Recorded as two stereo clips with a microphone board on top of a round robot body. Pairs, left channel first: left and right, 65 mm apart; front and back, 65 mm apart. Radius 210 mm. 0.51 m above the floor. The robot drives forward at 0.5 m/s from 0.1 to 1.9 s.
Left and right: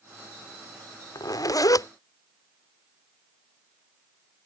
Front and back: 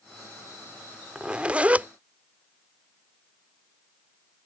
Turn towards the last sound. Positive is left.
turn(degrees=115)